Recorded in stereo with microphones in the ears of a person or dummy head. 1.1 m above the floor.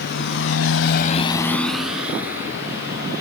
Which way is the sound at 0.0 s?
60° left (ahead or behind).